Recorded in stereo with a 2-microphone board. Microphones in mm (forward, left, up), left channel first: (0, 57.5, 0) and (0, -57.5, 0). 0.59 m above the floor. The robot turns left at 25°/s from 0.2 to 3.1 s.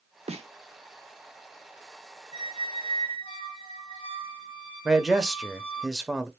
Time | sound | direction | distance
0.3 | a snare drum | 70° right (ahead or behind) | 0.8 m
2.3 | a squeak | 75° left (ahead or behind) | 1.9 m
4.8 | a man speaking | 5° right (ahead or behind) | 0.6 m